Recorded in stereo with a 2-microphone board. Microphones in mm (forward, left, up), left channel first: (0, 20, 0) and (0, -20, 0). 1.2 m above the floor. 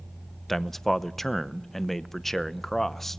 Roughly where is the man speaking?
Centre.